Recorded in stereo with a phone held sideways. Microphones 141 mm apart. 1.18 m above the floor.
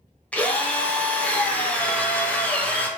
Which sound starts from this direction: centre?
A drill, at 0.3 s.